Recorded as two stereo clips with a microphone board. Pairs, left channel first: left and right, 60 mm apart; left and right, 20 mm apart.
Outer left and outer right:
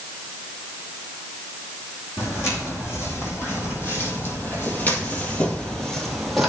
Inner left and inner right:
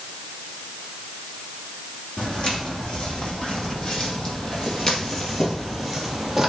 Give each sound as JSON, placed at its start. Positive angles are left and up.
{"t": 2.2, "sound": "footsteps", "side_deg": 45, "distance_m": 3.0}